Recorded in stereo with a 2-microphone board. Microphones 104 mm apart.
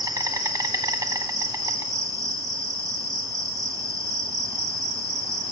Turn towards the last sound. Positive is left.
turn(degrees=-35)  # may be behind; listen again after turning